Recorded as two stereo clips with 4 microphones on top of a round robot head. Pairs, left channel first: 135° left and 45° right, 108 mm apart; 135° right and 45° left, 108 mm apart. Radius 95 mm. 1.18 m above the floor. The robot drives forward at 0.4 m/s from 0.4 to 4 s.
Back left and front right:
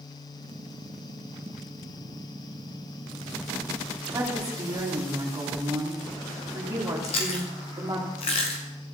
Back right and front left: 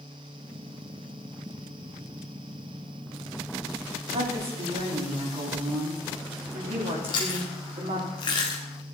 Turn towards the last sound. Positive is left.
turn(degrees=175)